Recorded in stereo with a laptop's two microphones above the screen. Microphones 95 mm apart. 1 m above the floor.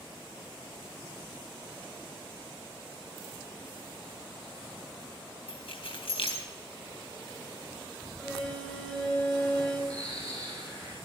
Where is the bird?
10° left (ahead or behind), 7.5 m.